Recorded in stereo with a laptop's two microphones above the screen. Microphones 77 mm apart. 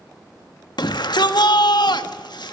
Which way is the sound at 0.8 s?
70° left (ahead or behind).